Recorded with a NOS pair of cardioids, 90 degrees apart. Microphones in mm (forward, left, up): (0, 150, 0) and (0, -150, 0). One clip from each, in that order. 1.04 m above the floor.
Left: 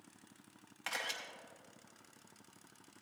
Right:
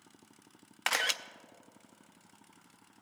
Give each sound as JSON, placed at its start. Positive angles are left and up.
{"t": 0.9, "sound": "a camera shutter", "azimuth_deg": -55, "distance_m": 0.5}